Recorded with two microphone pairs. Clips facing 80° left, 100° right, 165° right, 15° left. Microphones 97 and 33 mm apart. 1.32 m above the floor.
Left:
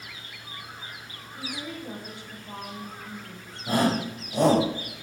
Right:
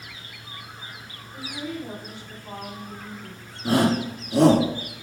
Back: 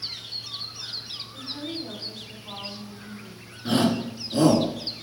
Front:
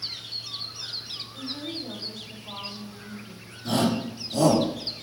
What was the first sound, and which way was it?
A woman speaking, 90° right.